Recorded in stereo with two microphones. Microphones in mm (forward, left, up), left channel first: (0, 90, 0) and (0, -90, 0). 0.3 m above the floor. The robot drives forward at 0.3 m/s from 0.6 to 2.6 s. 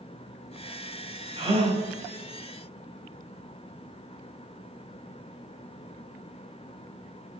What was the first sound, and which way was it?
A gasp, 35° right (ahead or behind).